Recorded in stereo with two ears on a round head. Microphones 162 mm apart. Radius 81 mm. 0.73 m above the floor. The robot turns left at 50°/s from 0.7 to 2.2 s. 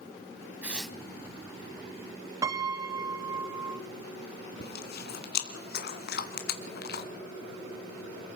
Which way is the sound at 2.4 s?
20° right (ahead or behind).